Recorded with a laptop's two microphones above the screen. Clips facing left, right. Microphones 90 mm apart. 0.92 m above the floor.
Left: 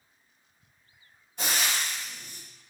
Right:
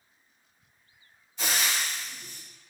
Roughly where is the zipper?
No zipper in this recording.